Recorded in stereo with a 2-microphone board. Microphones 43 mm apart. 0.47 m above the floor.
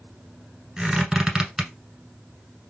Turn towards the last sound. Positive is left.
turn(degrees=-15)  # may be behind; listen again after turning